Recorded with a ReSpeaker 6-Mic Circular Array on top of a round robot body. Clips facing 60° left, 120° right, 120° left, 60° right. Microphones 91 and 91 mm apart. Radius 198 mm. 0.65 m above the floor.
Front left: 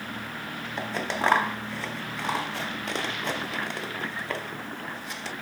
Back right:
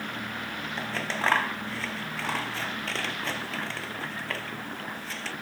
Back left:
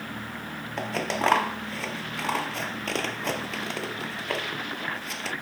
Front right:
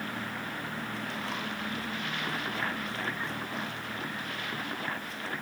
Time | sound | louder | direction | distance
0.8 | scissors | front left 3 dB, back left 9 dB | 135° left | ?